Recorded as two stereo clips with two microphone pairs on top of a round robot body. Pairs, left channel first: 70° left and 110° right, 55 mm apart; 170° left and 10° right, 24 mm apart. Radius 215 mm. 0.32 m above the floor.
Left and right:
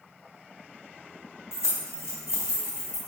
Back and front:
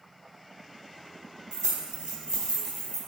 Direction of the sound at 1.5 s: 25° left.